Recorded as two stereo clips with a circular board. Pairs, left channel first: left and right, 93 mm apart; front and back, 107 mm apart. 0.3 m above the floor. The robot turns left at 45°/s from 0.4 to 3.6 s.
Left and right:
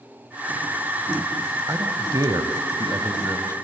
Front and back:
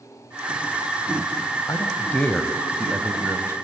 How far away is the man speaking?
About 1.4 m.